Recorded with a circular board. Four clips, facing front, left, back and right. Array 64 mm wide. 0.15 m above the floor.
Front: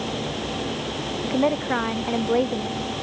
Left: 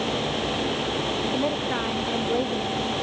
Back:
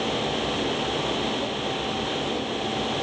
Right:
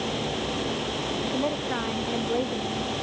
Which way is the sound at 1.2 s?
5° left.